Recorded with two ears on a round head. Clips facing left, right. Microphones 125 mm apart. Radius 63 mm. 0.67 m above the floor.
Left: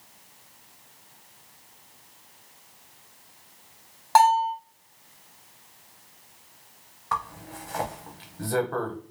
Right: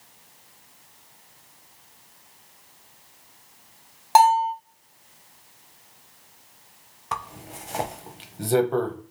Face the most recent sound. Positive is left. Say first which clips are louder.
# left 2 dB
turn(degrees=-25)  # may be behind; listen again after turning